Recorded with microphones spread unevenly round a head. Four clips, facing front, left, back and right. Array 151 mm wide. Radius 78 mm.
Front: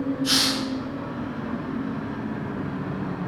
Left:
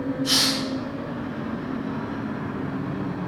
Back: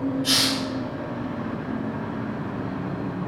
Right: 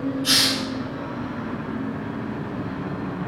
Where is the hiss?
125° right, 1.4 m.